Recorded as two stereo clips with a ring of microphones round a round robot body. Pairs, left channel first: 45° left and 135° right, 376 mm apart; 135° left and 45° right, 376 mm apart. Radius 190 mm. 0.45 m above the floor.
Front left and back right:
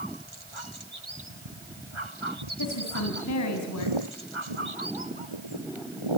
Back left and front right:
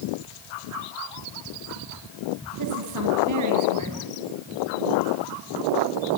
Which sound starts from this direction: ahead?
A woman speaking, at 2.6 s.